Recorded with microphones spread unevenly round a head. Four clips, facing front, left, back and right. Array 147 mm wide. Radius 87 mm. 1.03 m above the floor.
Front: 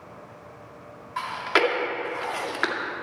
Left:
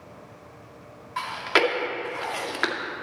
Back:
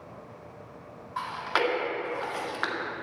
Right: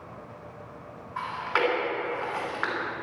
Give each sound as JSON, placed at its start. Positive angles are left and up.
{"t": 1.2, "sound": "chewing", "azimuth_deg": 75, "distance_m": 1.9}